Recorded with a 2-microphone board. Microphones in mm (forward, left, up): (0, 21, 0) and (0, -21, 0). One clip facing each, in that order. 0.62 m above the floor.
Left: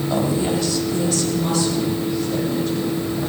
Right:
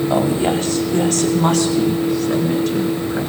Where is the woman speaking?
25° right (ahead or behind), 1.5 m; by 3.2 s 75° right (ahead or behind), 4.5 m.